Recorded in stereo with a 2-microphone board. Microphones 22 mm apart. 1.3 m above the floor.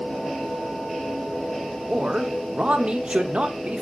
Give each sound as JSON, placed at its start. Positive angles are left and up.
{"t": 1.9, "sound": "a man speaking", "side_deg": -55, "distance_m": 0.5}